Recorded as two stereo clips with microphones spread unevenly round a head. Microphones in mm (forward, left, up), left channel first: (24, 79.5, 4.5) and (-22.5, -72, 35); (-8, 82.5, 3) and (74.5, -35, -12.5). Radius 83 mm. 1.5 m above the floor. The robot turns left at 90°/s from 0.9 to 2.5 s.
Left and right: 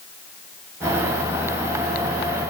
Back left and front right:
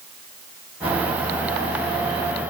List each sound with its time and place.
Only background noise.